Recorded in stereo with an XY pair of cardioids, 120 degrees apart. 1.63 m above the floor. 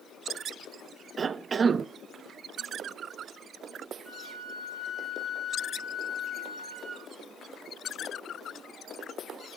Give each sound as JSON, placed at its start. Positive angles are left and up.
{"t": 1.2, "sound": "a cough", "azimuth_deg": -35, "distance_m": 0.5}
{"t": 4.0, "sound": "a flute", "azimuth_deg": -5, "distance_m": 6.5}